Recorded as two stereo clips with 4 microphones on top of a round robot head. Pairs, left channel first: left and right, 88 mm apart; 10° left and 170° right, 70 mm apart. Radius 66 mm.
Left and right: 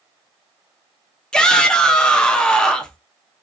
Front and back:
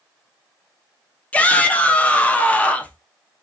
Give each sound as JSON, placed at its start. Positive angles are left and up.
{"t": 1.3, "sound": "a shout", "azimuth_deg": 25, "distance_m": 0.8}